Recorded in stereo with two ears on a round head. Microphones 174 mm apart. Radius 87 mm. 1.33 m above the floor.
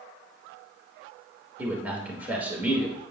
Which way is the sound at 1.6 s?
10° right (ahead or behind).